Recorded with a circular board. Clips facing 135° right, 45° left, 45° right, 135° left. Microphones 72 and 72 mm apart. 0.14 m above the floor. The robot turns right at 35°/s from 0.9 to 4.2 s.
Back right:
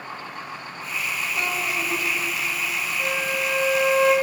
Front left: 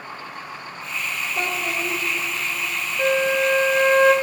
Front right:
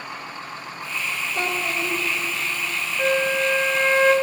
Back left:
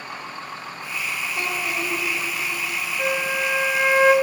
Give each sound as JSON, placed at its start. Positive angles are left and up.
{"t": 1.4, "sound": "a child speaking", "azimuth_deg": -30, "distance_m": 2.0}
{"t": 3.0, "sound": "a flute", "azimuth_deg": 30, "distance_m": 0.7}